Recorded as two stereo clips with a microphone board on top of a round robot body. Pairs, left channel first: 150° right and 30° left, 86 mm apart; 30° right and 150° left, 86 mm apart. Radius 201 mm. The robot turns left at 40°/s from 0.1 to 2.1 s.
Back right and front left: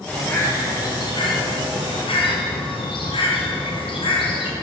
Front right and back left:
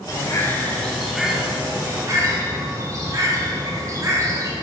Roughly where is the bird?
Right.